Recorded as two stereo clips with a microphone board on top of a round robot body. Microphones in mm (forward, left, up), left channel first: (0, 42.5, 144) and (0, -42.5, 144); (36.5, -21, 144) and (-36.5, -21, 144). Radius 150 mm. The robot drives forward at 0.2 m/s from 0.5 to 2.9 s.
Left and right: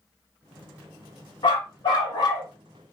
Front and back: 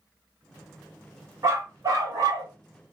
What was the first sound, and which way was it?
A dog barking, 125° left.